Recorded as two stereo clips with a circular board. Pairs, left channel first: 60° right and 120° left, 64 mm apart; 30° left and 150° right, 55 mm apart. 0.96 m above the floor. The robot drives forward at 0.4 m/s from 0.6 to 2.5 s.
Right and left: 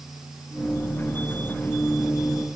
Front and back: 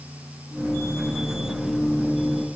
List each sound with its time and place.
Only background noise.